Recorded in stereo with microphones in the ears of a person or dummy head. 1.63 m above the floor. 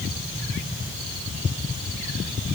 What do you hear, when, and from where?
Only background noise.